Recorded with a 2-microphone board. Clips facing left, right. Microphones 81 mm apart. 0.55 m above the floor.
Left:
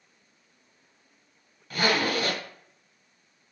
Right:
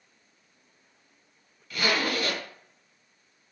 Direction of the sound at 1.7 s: 45° left (ahead or behind).